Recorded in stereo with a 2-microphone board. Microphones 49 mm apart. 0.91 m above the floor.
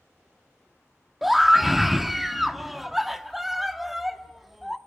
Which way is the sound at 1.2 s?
5° right (ahead or behind).